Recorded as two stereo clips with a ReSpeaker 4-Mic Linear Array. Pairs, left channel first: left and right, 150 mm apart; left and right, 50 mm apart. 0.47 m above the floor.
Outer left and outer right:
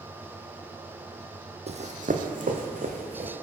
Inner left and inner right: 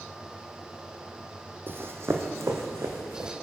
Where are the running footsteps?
45° right (ahead or behind), 0.7 m; by 3.3 s 70° right (ahead or behind), 1.7 m.